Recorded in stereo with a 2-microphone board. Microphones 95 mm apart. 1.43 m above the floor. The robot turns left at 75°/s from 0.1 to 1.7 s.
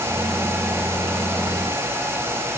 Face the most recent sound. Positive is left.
No sound to turn to.